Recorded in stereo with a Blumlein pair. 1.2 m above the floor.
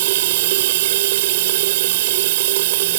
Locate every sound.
0.0 s running water: 55° right